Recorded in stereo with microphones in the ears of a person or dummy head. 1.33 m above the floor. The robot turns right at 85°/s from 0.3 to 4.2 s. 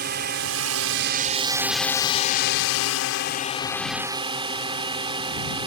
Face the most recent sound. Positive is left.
turn(degrees=-155)